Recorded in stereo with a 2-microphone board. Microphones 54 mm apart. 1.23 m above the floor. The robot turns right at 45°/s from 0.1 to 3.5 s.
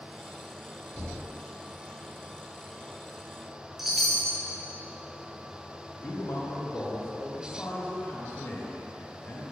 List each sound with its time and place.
0.9 s knocking: 65° left (ahead or behind), 1.6 m; by 1.3 s 50° left (ahead or behind), 1.6 m
3.8 s a chime: 5° right (ahead or behind), 0.7 m
6.0 s a man speaking: 45° left (ahead or behind), 1.0 m